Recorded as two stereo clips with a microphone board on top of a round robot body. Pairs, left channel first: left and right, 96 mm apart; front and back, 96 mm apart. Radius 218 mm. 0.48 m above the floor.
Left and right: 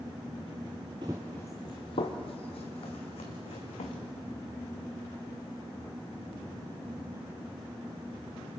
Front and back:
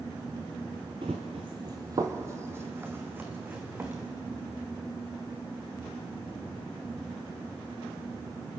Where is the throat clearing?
No throat clearing in this recording.